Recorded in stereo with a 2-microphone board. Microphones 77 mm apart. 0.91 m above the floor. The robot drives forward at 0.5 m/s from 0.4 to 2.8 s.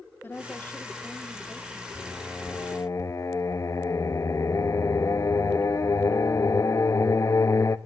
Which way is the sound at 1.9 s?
25° left (ahead or behind).